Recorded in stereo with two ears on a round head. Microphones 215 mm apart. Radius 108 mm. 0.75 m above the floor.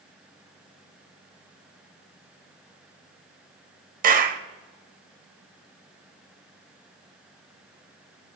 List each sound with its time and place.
4.0 s a clap: 35° right (ahead or behind), 1.2 m